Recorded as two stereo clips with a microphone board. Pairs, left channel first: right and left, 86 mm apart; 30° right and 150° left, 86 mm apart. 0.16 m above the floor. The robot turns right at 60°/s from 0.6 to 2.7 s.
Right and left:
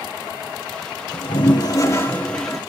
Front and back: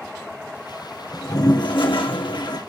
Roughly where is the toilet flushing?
Right.